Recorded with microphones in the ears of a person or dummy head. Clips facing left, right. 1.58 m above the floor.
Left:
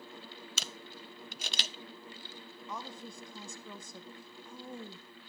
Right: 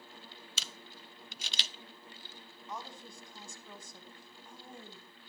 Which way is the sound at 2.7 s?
75° left (ahead or behind).